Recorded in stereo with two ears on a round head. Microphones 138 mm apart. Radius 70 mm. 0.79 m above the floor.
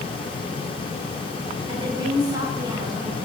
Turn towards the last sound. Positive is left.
turn(degrees=-25)  # may be behind; listen again after turning